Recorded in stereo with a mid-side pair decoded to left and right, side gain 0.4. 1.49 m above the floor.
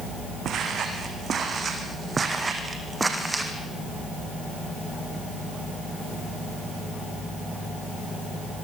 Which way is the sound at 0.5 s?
70° right.